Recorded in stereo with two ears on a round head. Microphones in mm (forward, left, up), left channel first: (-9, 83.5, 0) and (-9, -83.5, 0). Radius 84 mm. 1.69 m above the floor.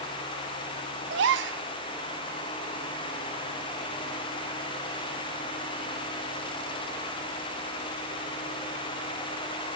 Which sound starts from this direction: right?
A gasp, at 1.1 s.